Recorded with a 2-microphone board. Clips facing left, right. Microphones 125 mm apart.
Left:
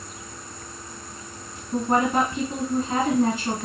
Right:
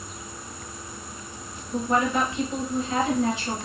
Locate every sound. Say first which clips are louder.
1.7 s a woman speaking: left 2 dB; 50° left (ahead or behind), 1.7 m